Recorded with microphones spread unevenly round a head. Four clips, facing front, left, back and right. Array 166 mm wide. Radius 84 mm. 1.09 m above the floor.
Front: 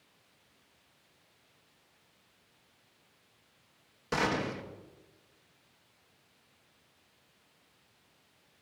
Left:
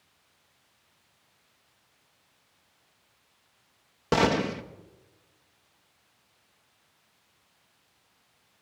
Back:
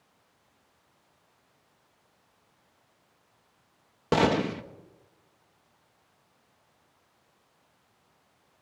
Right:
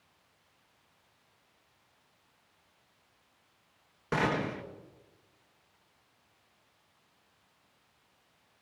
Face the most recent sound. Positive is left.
turn(degrees=145)